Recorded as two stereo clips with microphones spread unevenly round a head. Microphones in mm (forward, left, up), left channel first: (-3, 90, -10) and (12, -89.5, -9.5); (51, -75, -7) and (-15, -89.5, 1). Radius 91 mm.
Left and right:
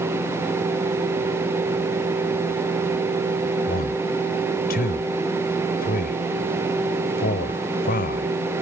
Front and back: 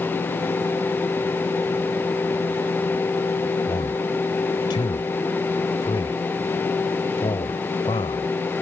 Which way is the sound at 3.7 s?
50° left.